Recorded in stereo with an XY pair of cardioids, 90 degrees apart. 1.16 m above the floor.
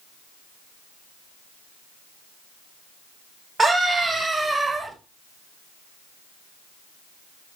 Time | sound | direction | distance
3.6 | a scream | 35° right | 5.5 m